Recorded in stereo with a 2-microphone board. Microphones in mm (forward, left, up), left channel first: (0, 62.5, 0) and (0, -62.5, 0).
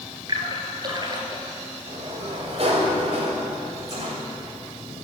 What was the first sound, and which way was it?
A splash, 35° right (ahead or behind).